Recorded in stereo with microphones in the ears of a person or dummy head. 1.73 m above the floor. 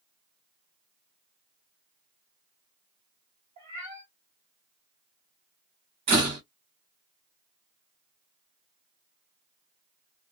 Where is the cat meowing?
25° right (ahead or behind), 1.3 m.